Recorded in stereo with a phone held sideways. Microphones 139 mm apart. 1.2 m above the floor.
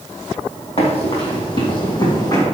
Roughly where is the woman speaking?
I don't hear a woman speaking.